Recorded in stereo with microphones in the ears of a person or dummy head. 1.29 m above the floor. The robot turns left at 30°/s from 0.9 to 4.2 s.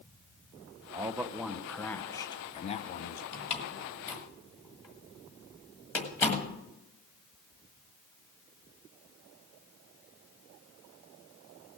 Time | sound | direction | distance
0.9 | a man speaking | 160° right | 0.5 m
3.3 | a door slam | 35° left (ahead or behind) | 1.5 m